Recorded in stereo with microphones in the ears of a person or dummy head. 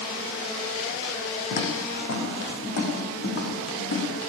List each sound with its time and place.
1.5 s footsteps: 50° left (ahead or behind), 6 m; by 4.0 s 70° left (ahead or behind), 8.5 m